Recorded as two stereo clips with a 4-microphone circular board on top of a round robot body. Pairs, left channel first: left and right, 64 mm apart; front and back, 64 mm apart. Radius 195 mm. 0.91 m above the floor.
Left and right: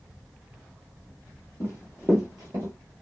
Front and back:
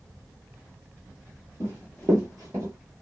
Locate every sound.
1.6 s running footsteps: 45° left, 1.0 m; by 2.7 s 135° right, 1.1 m